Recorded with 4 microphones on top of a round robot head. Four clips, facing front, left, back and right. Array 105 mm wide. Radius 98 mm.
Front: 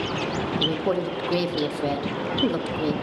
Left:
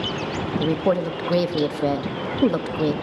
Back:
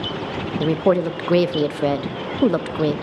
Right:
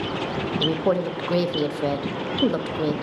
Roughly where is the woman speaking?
Behind.